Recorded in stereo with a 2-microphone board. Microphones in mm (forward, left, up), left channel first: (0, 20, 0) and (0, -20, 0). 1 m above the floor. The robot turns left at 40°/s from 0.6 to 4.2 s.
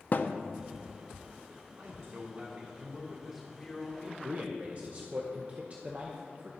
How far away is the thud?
About 0.5 m.